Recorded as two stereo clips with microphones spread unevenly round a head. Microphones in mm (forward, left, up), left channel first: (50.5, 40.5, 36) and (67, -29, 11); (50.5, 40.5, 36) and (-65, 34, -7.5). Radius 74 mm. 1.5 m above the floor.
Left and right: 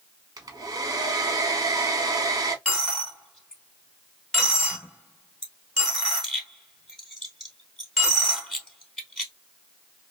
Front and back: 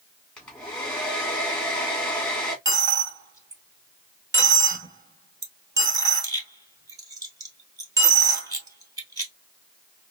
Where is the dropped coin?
120° left, 1.6 m.